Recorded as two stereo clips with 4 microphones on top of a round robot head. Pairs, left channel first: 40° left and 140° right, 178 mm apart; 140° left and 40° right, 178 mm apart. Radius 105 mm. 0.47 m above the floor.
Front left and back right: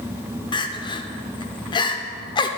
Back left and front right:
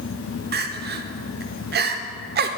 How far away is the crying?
About 0.7 m.